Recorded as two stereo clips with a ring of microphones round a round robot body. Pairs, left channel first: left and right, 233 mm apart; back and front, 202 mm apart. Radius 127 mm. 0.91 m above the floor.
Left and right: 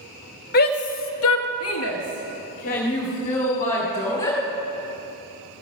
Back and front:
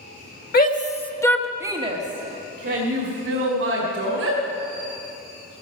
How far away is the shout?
About 1.6 m.